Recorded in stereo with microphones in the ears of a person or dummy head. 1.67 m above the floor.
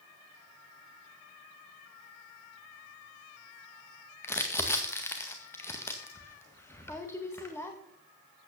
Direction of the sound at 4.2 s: 10° left (ahead or behind).